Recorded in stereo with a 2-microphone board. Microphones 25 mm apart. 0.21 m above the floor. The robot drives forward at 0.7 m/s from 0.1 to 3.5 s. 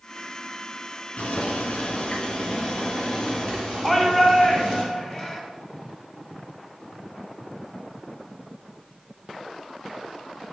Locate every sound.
1.2 s boiling: 60° left (ahead or behind), 1.1 m; by 4.8 s 30° left (ahead or behind), 2.0 m
3.8 s a shout: 30° left (ahead or behind), 1.5 m